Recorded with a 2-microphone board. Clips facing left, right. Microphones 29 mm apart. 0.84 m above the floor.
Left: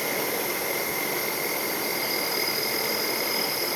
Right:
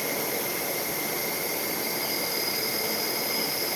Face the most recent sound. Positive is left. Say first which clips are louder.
# left 2 dB
turn(degrees=35)  # may be behind; listen again after turning